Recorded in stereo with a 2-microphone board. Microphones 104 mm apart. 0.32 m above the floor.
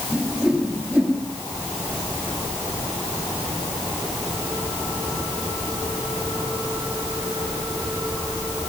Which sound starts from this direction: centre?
A whoosh, at 0.1 s.